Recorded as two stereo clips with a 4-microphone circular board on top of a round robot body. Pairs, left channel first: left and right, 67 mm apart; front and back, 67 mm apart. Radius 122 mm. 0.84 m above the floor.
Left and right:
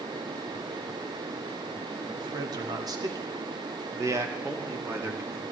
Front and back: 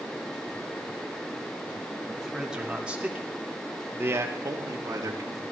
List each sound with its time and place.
2.2 s a man speaking: 95° right, 2.5 m; by 5.4 s 150° right, 2 m